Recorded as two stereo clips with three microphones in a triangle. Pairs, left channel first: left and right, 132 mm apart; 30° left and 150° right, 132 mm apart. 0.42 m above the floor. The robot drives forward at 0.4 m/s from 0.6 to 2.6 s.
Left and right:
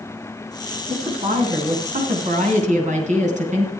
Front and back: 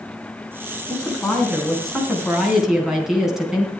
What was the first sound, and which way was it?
A woman speaking, 55° right.